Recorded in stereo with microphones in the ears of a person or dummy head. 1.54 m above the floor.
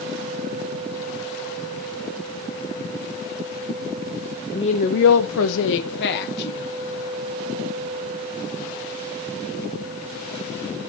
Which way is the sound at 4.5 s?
20° left (ahead or behind).